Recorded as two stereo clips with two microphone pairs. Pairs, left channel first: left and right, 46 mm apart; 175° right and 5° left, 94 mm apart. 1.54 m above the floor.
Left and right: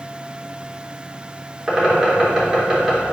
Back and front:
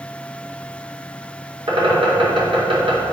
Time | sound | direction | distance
1.7 | a bird | 5° right | 3.5 m